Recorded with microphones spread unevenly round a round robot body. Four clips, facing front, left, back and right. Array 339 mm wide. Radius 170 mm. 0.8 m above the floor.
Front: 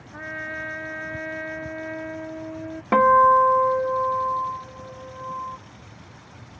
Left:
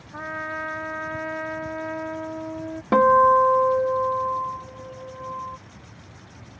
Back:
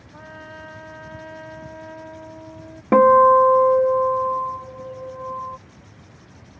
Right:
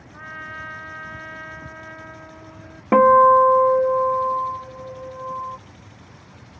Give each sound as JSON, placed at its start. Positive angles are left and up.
{"t": 0.1, "sound": "a trumpet", "azimuth_deg": 50}
{"t": 2.9, "sound": "a guitar", "azimuth_deg": -145}